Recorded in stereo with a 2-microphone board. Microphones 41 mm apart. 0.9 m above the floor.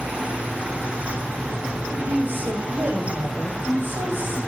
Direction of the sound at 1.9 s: 80° right.